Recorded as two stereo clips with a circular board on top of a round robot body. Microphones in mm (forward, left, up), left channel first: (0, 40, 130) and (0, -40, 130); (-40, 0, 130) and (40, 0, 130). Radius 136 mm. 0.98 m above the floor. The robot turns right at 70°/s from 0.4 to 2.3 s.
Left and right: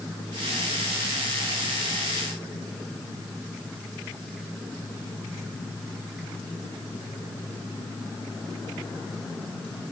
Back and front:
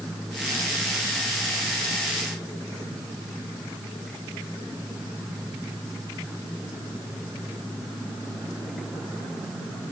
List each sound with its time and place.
Only background noise.